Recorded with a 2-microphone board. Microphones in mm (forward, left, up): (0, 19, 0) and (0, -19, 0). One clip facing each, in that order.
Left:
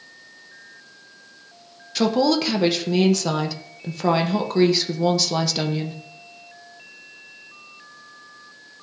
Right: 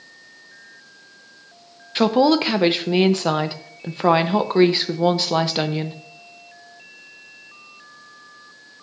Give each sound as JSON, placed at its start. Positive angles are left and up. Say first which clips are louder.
{"t": 1.9, "sound": "a woman speaking", "louder": "right 3 dB", "side_deg": -25, "distance_m": 0.5}